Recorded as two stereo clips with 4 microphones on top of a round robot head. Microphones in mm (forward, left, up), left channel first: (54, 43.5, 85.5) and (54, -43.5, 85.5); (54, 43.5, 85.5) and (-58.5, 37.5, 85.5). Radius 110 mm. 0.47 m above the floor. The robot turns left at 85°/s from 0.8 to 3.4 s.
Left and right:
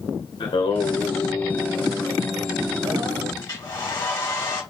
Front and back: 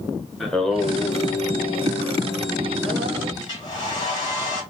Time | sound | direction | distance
0.4 | singing | 90° left | 1.6 m
3.4 | a hair dryer | 55° left | 3 m